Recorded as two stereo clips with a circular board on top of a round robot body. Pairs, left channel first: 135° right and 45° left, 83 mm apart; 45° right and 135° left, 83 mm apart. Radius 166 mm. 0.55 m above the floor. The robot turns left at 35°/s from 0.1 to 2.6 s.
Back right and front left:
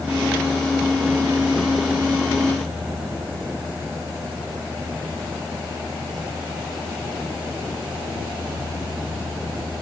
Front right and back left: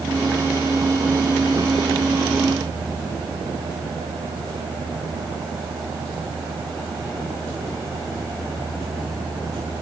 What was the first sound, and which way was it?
Only background noise.